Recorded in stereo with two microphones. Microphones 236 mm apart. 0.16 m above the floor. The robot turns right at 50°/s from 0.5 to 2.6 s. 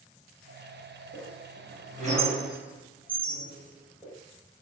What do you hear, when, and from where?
1.1 s a squeak: 60° right (ahead or behind), 1.9 m; by 4.1 s 5° right (ahead or behind), 1.9 m